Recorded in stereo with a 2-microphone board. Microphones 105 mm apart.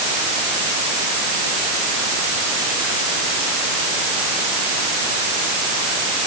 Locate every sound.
Only background noise.